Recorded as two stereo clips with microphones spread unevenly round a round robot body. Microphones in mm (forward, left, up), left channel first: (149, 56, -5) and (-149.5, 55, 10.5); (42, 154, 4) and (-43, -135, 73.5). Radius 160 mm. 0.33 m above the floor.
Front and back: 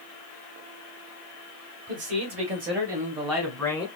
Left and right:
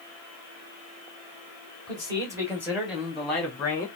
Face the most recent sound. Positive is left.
turn(degrees=55)